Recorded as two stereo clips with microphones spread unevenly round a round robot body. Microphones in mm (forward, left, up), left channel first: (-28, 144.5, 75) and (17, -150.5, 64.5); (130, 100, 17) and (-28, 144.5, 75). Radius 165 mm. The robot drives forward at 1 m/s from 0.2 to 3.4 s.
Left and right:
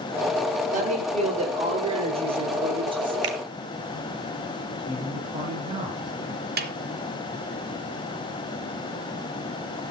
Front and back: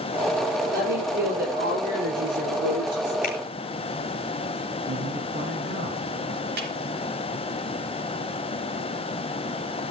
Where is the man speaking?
155° right, 4.5 m.